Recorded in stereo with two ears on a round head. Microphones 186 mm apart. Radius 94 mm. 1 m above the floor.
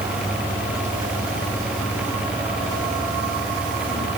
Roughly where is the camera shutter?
No camera shutter in this recording.